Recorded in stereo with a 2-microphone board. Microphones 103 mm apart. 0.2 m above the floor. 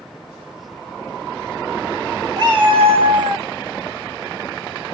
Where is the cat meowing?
45° right (ahead or behind), 1.2 m; by 3.5 s 30° right (ahead or behind), 1.0 m.